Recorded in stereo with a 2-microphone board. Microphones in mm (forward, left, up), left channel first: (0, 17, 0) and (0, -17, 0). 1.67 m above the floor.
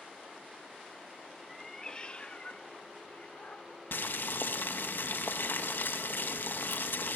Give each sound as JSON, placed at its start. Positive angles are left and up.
{"t": 1.5, "sound": "a cat meowing", "side_deg": 5, "distance_m": 1.1}
{"t": 3.9, "sound": "boiling", "side_deg": 75, "distance_m": 2.5}